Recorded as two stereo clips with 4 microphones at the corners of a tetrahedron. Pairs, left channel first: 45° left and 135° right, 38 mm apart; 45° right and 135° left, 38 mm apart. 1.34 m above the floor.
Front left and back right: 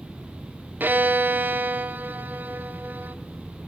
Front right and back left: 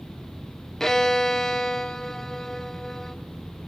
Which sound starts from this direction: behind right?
A violin, at 0.8 s.